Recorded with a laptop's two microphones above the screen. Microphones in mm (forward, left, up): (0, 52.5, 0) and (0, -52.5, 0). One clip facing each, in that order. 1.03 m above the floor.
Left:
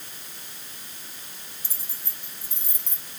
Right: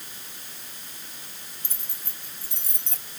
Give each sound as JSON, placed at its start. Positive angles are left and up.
{"t": 1.6, "sound": "keys jangling", "side_deg": -55}